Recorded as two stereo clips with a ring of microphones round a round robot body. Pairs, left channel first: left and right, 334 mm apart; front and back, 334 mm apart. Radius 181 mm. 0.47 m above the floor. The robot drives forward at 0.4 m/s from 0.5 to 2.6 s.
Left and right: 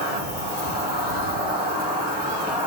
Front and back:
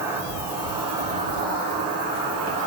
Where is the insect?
110° right, 1.4 m; by 2.7 s 150° right, 1.7 m.